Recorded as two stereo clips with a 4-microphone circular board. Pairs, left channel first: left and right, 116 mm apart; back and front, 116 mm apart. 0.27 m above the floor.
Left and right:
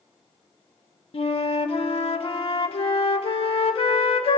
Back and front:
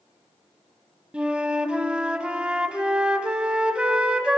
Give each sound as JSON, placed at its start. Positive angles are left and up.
{"t": 1.1, "sound": "a flute", "azimuth_deg": 80, "distance_m": 0.6}